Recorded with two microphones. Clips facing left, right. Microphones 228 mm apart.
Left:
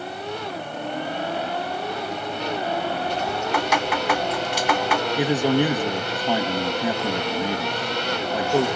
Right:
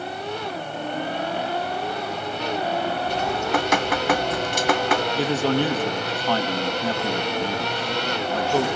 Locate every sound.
3.1 s dripping: 50° right (ahead or behind), 1.1 m
5.2 s a man speaking: 15° left (ahead or behind), 1.2 m